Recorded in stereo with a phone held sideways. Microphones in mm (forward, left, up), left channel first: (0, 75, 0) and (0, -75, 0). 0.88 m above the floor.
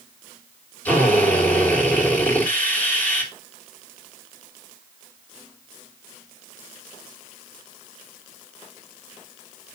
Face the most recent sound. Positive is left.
turn(degrees=10)  # may be behind; listen again after turning